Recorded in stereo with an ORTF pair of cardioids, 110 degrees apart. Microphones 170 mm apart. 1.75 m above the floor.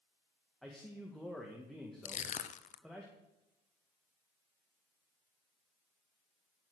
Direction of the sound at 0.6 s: Straight ahead.